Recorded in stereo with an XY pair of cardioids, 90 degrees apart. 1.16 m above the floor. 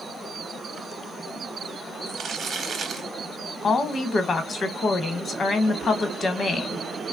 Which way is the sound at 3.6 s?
50° left.